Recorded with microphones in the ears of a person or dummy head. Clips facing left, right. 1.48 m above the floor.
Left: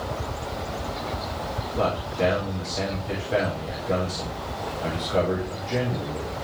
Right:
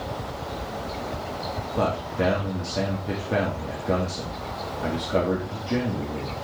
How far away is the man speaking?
About 2.5 m.